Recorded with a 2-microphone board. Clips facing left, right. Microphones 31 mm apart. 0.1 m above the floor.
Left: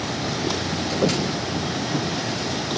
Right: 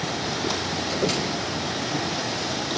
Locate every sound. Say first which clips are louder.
1.0 s footsteps: left 4 dB; 35° left (ahead or behind), 2.5 m; by 2.1 s 20° left (ahead or behind), 2.5 m